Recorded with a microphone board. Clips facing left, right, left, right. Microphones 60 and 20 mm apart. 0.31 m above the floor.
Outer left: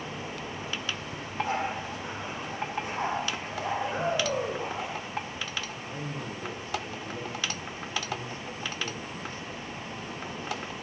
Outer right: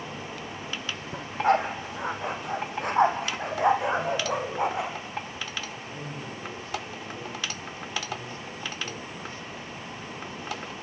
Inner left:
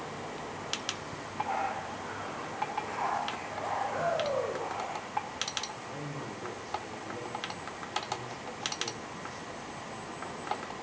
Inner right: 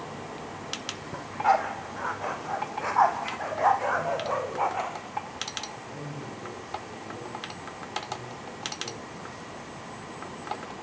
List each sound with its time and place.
1.1 s a dog barking: 60° right (ahead or behind), 3.5 m; by 4.9 s 75° right (ahead or behind), 5.5 m
3.9 s a shout: 20° left (ahead or behind), 9 m
5.8 s a man speaking: 30° left (ahead or behind), 9 m